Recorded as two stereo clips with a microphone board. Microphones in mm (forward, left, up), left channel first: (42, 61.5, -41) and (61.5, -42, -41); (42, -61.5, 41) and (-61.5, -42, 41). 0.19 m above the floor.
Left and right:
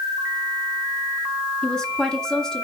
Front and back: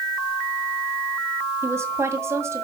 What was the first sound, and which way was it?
A woman speaking, 175° left.